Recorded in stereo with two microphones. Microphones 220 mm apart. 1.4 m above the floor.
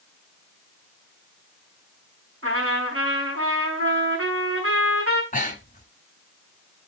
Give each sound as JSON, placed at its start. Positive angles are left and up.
{"t": 2.4, "sound": "a trumpet", "side_deg": -75, "distance_m": 6.5}
{"t": 5.3, "sound": "breathing", "side_deg": 40, "distance_m": 1.7}